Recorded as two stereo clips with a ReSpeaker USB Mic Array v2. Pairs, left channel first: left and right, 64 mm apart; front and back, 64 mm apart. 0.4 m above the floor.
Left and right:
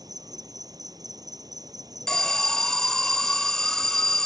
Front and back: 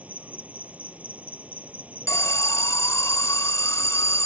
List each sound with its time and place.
0.0 s an insect: 110° right
2.1 s an alarm: 10° left